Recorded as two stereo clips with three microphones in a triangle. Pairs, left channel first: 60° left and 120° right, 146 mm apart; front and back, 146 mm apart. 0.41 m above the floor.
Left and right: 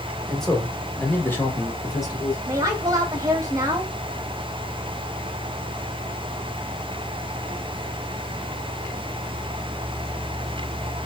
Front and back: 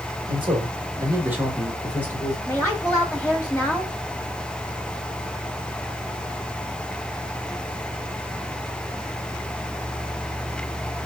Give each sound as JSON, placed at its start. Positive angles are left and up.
{"t": 0.3, "sound": "a man speaking", "azimuth_deg": 150, "distance_m": 2.0}
{"t": 2.5, "sound": "a woman speaking", "azimuth_deg": -75, "distance_m": 1.0}